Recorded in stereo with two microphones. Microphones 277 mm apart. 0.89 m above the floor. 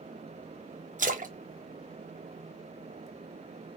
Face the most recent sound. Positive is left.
turn(degrees=-30)  # may be behind; listen again after turning